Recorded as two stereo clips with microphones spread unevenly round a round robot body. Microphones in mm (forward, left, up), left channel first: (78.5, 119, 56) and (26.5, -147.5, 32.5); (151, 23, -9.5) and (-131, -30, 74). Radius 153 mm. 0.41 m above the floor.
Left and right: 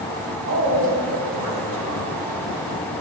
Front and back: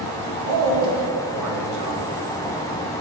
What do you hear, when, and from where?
0.5 s a man speaking: 140° right, 2 m